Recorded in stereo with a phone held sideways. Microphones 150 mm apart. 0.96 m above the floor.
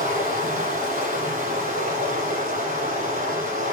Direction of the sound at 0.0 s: 65° right (ahead or behind).